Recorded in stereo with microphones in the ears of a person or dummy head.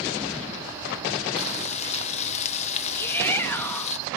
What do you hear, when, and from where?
1.4 s frying: 40° left (ahead or behind), 0.8 m
3.0 s a shout: 15° left (ahead or behind), 2 m